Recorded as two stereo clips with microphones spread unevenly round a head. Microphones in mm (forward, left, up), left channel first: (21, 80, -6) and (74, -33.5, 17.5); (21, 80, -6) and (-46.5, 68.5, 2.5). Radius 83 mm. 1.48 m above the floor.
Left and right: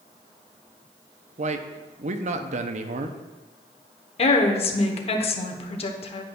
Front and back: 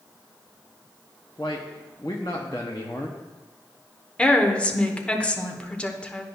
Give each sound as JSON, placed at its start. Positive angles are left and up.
{"t": 1.4, "sound": "a man speaking", "azimuth_deg": -55, "distance_m": 0.6}
{"t": 4.2, "sound": "a woman speaking", "azimuth_deg": 80, "distance_m": 1.0}